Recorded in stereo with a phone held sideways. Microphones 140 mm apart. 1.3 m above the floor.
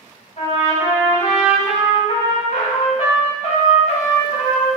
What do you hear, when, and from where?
0.4 s a trumpet: 55° left (ahead or behind), 1.7 m